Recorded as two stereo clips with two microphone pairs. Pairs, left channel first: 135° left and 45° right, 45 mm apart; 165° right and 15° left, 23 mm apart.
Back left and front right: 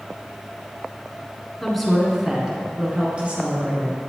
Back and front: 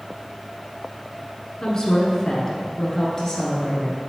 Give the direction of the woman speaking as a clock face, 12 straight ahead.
5 o'clock.